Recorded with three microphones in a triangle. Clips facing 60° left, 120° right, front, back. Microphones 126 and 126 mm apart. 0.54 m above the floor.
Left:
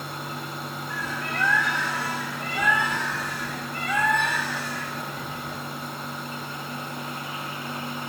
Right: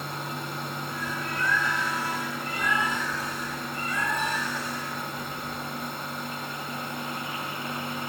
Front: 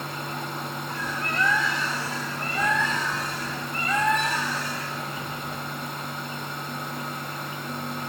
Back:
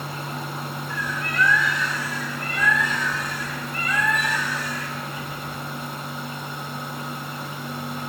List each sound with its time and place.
0.9 s a bird: 60° left, 3 m